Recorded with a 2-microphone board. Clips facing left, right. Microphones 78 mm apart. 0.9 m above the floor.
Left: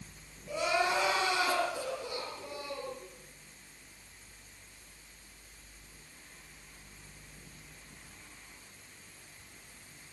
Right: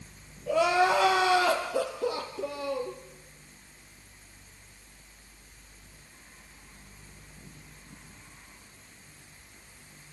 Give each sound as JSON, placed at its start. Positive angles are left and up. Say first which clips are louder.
{"t": 0.5, "sound": "crying", "louder": "right 7 dB", "side_deg": -70, "distance_m": 3.5}